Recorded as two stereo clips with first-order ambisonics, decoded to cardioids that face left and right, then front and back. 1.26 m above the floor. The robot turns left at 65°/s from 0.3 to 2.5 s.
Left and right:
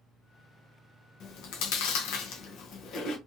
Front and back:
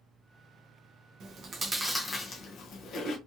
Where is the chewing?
135° left, 0.6 m; by 3.2 s 50° left, 0.6 m.